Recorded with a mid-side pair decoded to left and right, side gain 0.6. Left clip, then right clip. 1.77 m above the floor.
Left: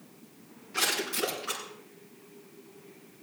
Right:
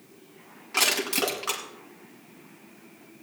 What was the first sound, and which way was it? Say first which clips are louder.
Crushing: right 5 dB; 50° right.